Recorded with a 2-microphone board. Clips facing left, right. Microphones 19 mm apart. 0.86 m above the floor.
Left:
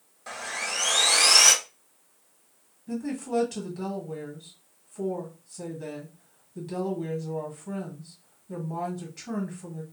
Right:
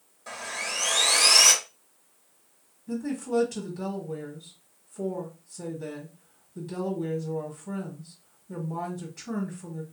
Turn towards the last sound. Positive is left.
turn(degrees=15)  # may be behind; listen again after turning